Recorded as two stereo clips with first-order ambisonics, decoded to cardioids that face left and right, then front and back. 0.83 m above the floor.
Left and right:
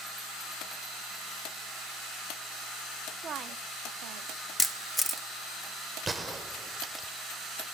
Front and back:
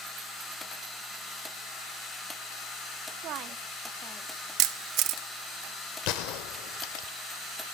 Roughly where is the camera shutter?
Behind.